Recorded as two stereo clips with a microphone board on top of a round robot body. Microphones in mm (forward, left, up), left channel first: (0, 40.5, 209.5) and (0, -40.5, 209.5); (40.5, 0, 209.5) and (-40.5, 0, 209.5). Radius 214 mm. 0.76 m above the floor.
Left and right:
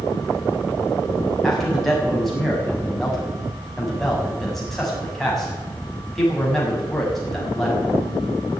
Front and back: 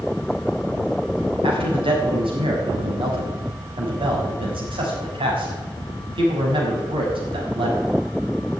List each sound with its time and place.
1.4 s a man speaking: straight behind, 6.5 m